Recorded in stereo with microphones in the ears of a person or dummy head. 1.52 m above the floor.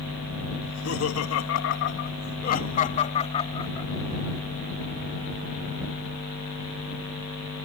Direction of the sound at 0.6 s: 80° left.